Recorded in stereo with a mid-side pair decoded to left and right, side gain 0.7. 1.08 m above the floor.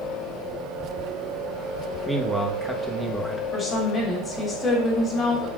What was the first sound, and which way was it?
A man speaking, straight ahead.